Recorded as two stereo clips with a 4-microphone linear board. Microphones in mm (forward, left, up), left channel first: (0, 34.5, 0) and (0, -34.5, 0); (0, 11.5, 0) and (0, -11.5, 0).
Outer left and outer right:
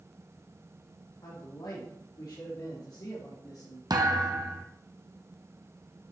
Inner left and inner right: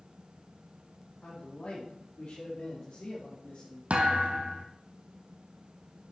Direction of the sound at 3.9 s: 65° right (ahead or behind).